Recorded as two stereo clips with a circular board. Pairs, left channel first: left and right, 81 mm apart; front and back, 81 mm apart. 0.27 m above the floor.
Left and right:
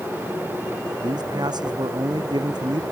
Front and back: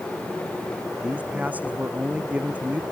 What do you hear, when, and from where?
1.0 s a man speaking: 110° right